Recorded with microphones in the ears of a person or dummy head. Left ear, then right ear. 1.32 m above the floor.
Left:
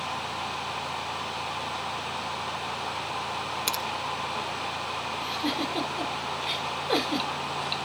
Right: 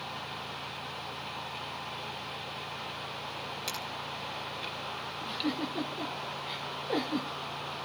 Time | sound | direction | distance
3.7 | a finger snap | 30° left (ahead or behind) | 1.8 m
5.2 | a giggle | 50° left (ahead or behind) | 4.5 m